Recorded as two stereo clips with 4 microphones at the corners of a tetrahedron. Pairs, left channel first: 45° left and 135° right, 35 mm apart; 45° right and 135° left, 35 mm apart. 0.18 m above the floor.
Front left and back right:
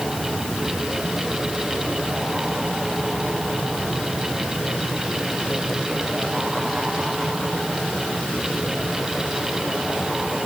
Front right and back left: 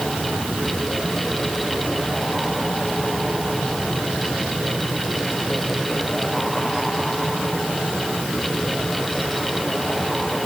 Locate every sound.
Only background noise.